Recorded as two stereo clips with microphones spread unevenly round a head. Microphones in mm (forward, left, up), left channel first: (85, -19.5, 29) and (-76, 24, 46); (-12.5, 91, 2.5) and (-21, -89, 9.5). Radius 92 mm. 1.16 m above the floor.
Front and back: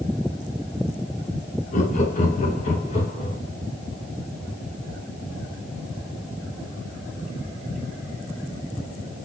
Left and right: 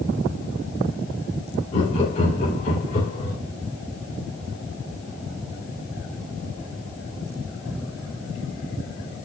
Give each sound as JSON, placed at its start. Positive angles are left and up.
{"t": 1.7, "sound": "laughter", "azimuth_deg": 30, "distance_m": 1.9}